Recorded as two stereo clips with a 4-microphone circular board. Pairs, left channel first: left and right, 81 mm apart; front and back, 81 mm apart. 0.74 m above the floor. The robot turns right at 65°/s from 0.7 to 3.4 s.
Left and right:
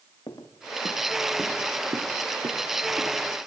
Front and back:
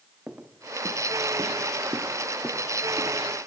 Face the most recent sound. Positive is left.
turn(degrees=-5)